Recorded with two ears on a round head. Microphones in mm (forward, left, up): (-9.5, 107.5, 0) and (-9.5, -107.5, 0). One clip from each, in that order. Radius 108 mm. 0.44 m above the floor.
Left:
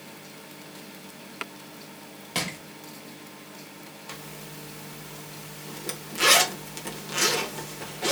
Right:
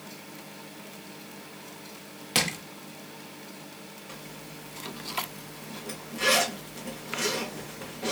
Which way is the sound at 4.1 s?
45° left (ahead or behind).